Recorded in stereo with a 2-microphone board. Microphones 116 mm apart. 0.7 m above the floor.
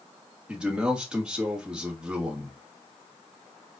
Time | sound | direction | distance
0.5 | a man speaking | 5° right (ahead or behind) | 1.4 m